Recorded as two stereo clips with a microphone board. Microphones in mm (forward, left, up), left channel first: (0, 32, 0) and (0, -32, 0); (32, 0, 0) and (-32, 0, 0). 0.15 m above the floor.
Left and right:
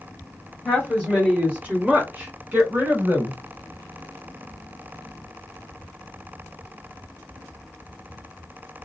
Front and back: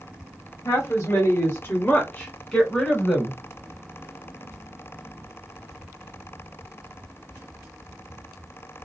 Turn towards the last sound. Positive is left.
turn(degrees=-100)